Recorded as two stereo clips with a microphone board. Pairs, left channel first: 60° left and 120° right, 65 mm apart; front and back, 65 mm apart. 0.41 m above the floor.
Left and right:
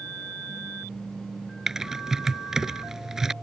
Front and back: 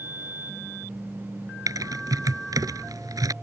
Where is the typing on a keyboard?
155° left.